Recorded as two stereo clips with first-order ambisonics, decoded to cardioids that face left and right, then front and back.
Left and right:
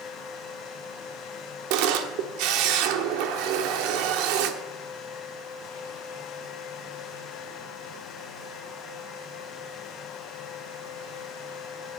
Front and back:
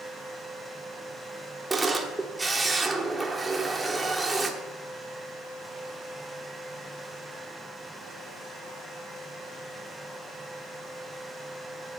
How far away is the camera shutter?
About 1.1 m.